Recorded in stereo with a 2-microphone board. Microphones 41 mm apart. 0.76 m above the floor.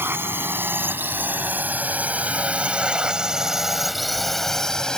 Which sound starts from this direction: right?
A drone, at 0.0 s.